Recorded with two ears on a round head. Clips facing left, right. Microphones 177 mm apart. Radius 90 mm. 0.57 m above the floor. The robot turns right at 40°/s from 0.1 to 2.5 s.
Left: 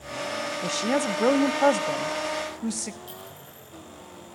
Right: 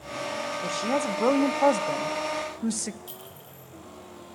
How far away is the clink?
About 8.5 m.